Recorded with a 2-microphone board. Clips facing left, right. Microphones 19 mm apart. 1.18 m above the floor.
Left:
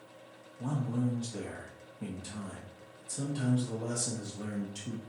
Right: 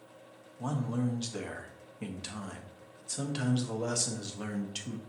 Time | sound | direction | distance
0.6 | a man speaking | 70° right (ahead or behind) | 0.7 m